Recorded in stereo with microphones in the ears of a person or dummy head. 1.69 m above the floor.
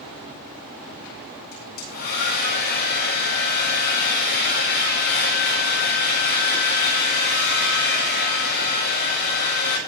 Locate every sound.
1.5 s a hair dryer: 50° left (ahead or behind), 8.5 m